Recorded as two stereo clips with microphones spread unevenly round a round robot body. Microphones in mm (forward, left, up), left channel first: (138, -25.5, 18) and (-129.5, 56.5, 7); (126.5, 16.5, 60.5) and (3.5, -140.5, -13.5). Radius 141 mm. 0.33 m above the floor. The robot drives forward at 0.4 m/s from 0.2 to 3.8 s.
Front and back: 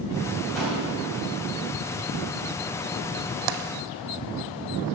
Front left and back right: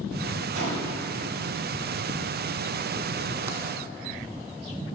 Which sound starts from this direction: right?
A gunshot, at 0.6 s.